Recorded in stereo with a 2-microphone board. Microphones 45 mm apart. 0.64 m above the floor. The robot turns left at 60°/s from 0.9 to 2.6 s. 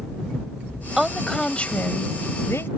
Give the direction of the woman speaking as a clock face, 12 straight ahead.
6 o'clock.